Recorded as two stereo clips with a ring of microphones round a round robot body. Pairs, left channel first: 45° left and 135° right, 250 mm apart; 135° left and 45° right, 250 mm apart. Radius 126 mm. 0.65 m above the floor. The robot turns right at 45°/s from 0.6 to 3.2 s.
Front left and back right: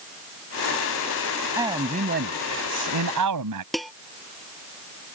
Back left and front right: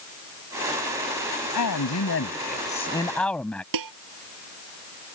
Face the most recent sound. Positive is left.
turn(degrees=-45)